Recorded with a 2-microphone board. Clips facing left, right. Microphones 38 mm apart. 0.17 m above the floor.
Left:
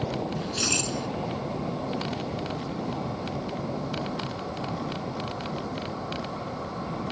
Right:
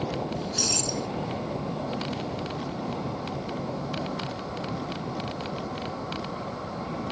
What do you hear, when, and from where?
0.4 s keys jangling: 40° left (ahead or behind)